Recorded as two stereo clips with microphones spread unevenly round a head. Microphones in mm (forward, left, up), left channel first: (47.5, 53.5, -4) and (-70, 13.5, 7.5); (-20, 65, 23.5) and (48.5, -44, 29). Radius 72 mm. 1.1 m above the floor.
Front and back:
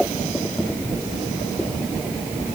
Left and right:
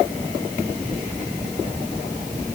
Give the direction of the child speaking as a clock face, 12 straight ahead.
No child speaking in this recording.